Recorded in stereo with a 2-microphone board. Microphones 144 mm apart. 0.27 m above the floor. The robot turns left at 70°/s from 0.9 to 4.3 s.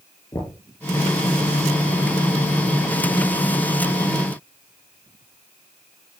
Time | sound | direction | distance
0.3 | knocking | 25° left (ahead or behind) | 4.5 m